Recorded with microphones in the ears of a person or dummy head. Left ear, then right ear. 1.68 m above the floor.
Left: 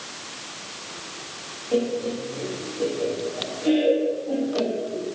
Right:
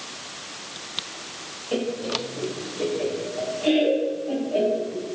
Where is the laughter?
25° right (ahead or behind), 0.9 m.